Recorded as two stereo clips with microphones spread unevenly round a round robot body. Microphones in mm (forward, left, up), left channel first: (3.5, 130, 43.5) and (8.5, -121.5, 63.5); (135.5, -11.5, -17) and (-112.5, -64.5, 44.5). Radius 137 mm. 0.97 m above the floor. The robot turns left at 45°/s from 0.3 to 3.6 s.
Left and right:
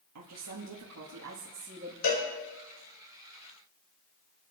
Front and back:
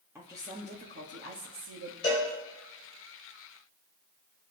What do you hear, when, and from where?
0.1 s a woman speaking: 85° right, 1.8 m; by 1.9 s 160° right, 1.8 m
2.0 s a cowbell: 85° left, 4.5 m; by 2.3 s 75° left, 4.5 m